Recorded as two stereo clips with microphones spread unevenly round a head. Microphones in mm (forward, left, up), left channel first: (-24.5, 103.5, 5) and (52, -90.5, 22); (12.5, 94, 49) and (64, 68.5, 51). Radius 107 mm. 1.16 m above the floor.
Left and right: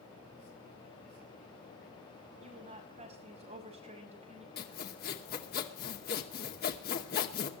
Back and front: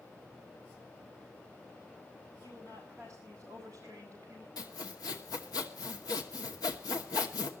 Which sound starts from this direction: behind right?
A woman speaking, at 2.4 s.